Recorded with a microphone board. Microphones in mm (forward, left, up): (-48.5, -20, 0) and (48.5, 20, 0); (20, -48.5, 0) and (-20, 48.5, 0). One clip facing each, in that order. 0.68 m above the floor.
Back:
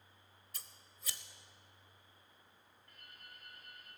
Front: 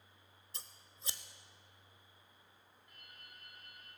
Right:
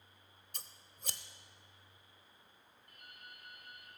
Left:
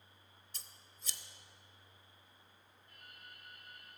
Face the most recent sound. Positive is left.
turn(degrees=-50)